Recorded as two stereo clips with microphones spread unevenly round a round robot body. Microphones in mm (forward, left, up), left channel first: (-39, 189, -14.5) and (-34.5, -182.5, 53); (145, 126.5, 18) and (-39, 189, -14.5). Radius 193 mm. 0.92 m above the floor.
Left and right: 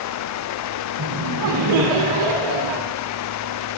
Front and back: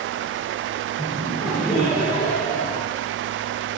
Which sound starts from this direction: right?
Laughter, at 1.0 s.